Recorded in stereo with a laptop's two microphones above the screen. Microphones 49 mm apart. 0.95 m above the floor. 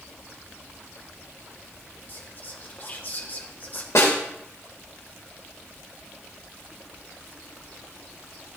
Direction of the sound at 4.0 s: 80° left.